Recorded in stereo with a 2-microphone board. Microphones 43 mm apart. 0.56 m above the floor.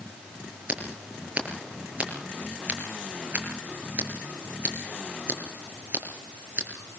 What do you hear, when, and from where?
0.7 s scissors: 35° right (ahead or behind), 6 m